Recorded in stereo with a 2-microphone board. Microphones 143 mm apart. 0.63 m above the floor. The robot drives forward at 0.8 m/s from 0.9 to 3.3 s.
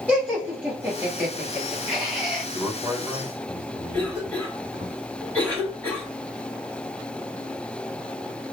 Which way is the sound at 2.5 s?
10° right (ahead or behind).